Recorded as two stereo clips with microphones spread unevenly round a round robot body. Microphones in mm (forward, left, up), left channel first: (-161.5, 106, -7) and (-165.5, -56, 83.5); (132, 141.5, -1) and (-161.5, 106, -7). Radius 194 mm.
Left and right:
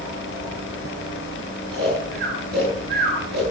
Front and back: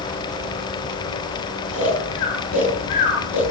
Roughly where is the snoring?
Ahead right.